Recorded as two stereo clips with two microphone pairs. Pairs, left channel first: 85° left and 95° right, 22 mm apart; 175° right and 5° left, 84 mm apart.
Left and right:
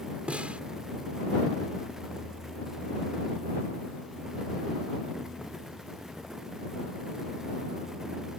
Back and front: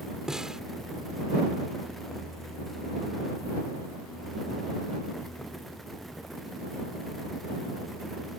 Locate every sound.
0.3 s a snare drum: 75° right